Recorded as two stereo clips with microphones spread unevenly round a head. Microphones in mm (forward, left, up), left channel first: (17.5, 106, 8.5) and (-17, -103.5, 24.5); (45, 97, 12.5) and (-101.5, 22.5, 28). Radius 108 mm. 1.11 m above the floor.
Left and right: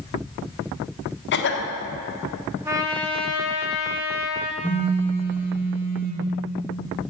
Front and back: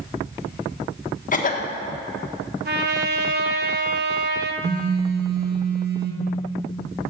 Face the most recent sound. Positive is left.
turn(degrees=180)